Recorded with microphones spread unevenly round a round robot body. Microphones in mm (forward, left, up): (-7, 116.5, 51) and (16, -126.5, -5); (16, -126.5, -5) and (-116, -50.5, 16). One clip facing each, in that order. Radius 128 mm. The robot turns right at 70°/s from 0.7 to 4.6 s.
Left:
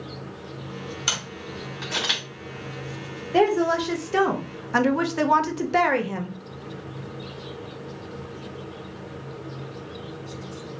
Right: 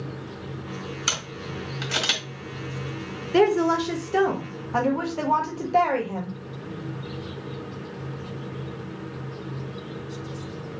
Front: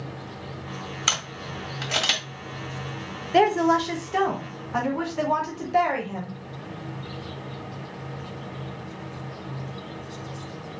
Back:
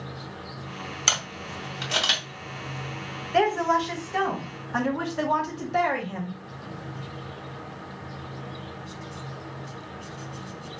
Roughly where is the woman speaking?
Ahead right.